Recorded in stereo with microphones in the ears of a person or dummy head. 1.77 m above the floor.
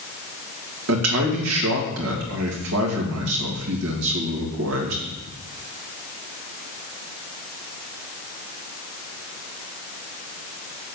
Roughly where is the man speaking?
Right.